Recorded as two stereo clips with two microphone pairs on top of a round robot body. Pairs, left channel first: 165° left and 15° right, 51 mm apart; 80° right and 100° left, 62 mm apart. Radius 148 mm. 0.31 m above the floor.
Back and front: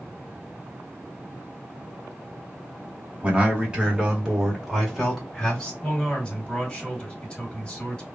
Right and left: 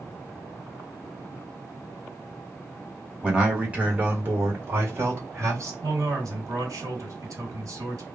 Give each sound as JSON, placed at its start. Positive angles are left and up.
{"t": 3.2, "sound": "a man speaking", "azimuth_deg": 25, "distance_m": 1.7}
{"t": 5.8, "sound": "a man speaking", "azimuth_deg": 95, "distance_m": 2.0}